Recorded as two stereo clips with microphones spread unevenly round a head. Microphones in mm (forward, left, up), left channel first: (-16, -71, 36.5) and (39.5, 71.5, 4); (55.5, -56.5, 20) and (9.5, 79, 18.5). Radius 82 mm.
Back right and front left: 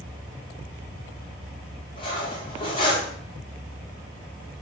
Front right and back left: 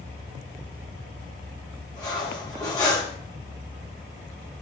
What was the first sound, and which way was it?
Cutlery clinking, 130° right.